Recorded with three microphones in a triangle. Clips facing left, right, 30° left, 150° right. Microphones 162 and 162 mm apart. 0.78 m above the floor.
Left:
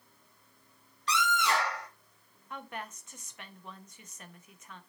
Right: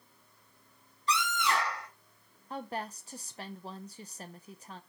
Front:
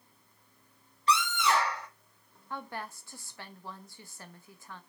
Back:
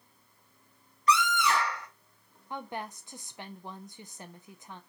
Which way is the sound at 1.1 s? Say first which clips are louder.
Left 1 dB, back 1 dB; 90° left.